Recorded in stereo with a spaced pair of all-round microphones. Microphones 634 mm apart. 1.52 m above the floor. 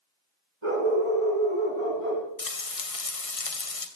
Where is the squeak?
No squeak in this recording.